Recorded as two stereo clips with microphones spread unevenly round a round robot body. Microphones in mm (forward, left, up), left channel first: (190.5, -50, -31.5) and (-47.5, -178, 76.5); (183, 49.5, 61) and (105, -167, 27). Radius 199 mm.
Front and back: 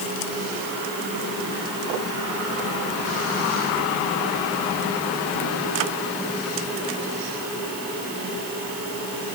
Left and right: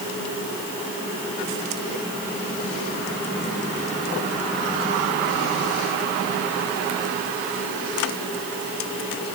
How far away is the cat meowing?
No cat meowing in this recording.